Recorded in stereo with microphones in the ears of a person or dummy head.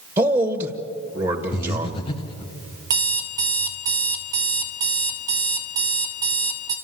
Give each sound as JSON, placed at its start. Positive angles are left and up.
{"t": 0.2, "sound": "a man speaking", "side_deg": -25, "distance_m": 1.3}
{"t": 1.5, "sound": "breathing", "side_deg": 30, "distance_m": 1.0}
{"t": 2.9, "sound": "an alarm clock", "side_deg": -15, "distance_m": 0.8}